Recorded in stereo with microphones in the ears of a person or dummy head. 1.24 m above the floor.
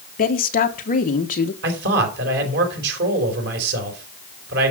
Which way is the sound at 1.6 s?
65° right (ahead or behind).